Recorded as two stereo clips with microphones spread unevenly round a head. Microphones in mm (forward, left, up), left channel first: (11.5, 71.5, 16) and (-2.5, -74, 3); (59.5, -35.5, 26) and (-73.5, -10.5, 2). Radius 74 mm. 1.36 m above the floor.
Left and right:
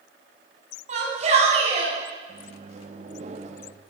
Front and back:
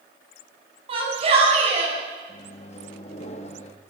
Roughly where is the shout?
Behind right.